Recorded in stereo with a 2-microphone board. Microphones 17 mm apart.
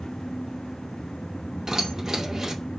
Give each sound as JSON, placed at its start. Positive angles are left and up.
{"t": 1.7, "sound": "keys jangling", "side_deg": -35, "distance_m": 2.5}